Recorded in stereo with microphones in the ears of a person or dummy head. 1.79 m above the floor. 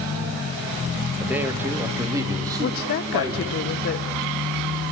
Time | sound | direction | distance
1.2 | a man speaking | 10° right (ahead or behind) | 2 m
2.6 | a woman speaking | 50° left (ahead or behind) | 1.3 m